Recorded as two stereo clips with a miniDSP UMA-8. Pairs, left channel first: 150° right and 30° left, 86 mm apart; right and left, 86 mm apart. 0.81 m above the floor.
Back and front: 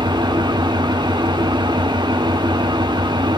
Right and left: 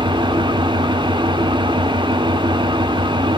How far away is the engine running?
About 1.3 m.